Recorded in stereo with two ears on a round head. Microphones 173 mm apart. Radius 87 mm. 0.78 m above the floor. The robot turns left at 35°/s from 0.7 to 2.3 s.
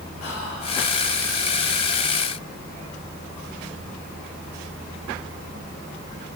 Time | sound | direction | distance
0.2 | whispering | 65° left (ahead or behind) | 2.5 m